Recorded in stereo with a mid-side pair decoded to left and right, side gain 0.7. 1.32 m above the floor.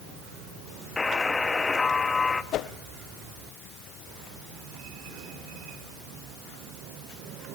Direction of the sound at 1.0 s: 20° left.